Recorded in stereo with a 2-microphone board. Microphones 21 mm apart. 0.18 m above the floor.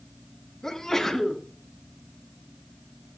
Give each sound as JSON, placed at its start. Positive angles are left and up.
{"t": 0.6, "sound": "a sneeze", "side_deg": 20, "distance_m": 1.6}